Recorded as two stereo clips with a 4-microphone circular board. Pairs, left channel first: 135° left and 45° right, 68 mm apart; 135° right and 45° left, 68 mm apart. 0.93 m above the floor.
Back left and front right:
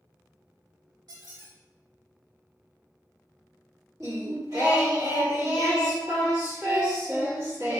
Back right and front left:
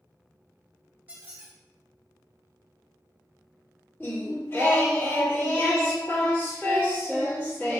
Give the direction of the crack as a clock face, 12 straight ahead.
No crack in this recording.